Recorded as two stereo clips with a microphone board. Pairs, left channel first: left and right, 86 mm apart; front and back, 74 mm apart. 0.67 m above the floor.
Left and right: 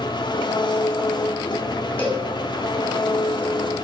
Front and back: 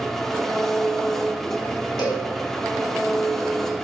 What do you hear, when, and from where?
0.0 s an engine running: 85° left, 1.4 m
2.0 s a cowbell: 15° left, 5 m